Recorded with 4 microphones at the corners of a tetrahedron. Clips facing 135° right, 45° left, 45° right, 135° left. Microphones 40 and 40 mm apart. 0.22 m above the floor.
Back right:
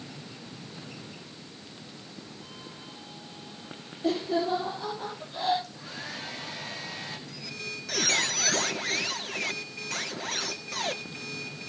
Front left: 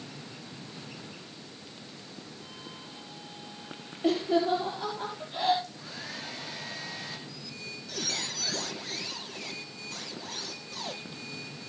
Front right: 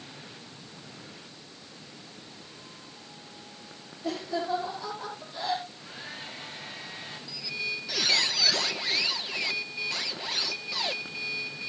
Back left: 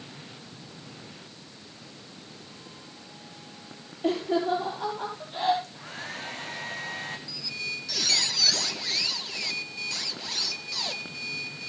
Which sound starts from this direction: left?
Laughter, at 4.0 s.